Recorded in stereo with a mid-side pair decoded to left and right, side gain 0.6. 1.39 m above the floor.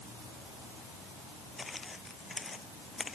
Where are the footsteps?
20° left.